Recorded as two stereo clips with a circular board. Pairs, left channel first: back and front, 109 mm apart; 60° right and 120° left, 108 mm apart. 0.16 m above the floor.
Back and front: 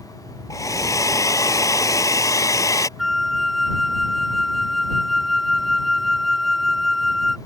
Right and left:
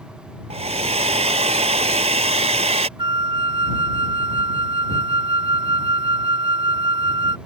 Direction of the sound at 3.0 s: 90° left.